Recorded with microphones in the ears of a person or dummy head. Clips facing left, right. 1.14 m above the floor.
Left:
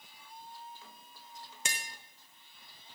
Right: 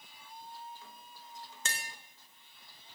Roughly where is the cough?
I don't hear a cough.